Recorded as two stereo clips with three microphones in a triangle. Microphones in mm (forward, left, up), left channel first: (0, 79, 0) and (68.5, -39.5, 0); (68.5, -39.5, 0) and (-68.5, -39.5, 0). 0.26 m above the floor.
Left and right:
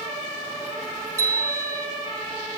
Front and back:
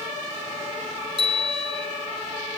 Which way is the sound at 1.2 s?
125° right.